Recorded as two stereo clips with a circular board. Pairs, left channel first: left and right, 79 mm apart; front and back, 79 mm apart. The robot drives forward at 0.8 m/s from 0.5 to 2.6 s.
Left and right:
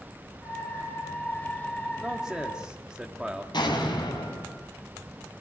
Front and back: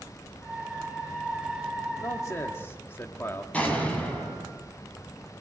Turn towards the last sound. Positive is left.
turn(degrees=70)